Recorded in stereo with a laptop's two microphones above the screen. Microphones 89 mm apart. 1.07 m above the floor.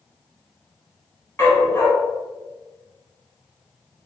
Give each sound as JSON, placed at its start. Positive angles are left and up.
{"t": 1.4, "sound": "a dog barking", "side_deg": 25, "distance_m": 0.8}